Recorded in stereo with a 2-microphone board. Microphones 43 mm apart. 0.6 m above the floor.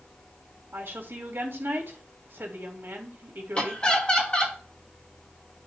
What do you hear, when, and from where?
0.7 s a woman speaking: 60° right (ahead or behind), 2 m
3.5 s laughter: 25° left (ahead or behind), 1.6 m